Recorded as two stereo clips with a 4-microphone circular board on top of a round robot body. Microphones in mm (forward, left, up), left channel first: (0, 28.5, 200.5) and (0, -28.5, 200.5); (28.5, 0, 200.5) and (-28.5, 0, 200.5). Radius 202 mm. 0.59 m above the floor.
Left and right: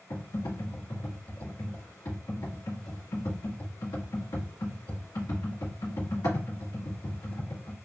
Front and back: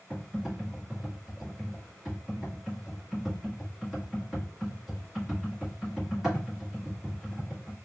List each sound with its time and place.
0.1 s typing on a keyboard: 95° left, 2 m